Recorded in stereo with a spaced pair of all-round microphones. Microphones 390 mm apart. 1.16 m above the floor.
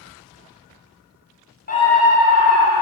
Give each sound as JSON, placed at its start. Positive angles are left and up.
{"t": 1.7, "sound": "a scream", "side_deg": 25, "distance_m": 0.6}